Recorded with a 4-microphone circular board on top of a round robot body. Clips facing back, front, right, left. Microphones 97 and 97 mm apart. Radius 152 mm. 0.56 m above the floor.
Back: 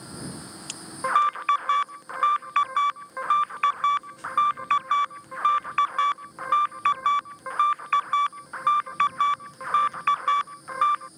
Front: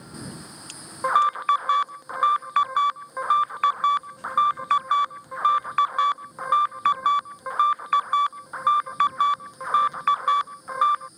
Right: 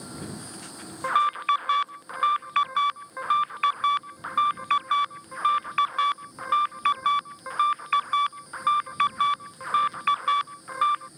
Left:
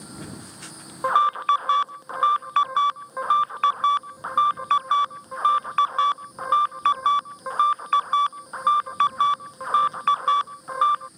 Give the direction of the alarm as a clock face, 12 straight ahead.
10 o'clock.